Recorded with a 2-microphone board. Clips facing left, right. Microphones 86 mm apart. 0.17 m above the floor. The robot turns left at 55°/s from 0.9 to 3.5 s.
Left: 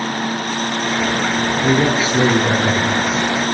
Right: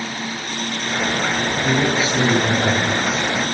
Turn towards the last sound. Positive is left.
turn(degrees=-25)